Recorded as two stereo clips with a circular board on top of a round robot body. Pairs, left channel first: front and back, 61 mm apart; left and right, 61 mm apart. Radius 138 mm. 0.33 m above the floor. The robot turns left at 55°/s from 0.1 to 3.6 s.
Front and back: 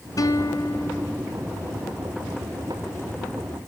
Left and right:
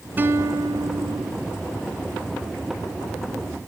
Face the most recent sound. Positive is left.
turn(degrees=145)